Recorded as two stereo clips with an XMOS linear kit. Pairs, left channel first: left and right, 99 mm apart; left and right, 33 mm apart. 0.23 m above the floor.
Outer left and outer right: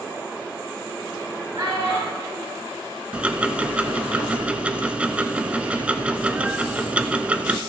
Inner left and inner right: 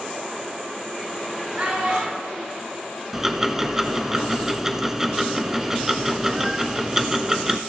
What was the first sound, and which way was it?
A child speaking, 55° right (ahead or behind).